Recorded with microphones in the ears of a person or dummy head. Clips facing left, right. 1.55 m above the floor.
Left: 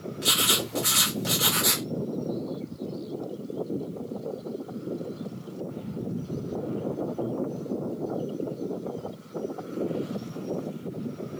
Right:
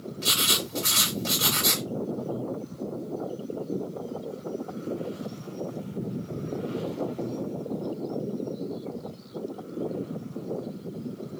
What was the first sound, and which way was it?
Writing, 5° left (ahead or behind).